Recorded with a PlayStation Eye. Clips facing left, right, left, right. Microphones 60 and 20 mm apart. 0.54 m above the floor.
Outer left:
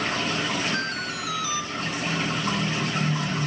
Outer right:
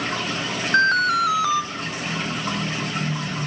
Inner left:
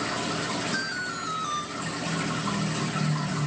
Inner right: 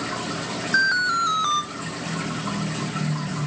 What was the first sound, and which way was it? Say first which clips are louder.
An alarm: outer right 12 dB, inner right 11 dB; 55° right (ahead or behind).